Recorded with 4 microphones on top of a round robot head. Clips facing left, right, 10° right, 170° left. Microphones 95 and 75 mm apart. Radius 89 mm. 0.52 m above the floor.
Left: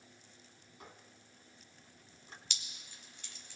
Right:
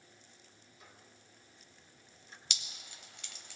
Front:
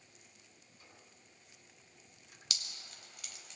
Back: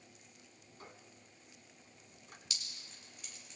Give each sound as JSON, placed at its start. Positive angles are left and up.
{"t": 0.8, "sound": "a squeak", "azimuth_deg": 130, "distance_m": 3.0}
{"t": 2.5, "sound": "dripping", "azimuth_deg": -50, "distance_m": 0.5}